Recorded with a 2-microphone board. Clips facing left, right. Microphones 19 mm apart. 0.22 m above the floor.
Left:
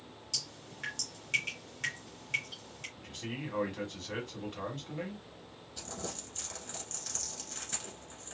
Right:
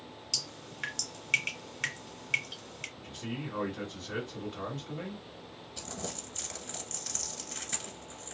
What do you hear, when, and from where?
0.3 s dripping: 25° right (ahead or behind), 1.3 m
3.0 s a man speaking: 15° left (ahead or behind), 1.4 m
5.8 s crumpling: 10° right (ahead or behind), 1.2 m